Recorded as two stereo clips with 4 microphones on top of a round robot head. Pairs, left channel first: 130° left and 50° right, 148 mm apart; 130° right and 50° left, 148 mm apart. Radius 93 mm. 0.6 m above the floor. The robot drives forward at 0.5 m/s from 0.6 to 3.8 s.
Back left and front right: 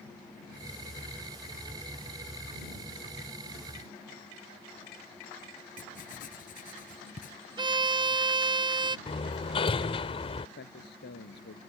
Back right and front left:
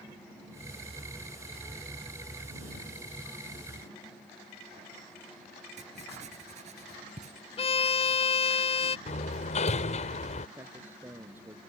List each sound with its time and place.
5.8 s writing: 95° left
7.6 s a violin: 95° right
9.1 s hammering: 175° right
10.6 s a man speaking: 125° left